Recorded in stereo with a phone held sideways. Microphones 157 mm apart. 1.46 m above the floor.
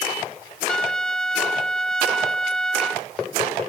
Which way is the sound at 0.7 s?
5° left (ahead or behind).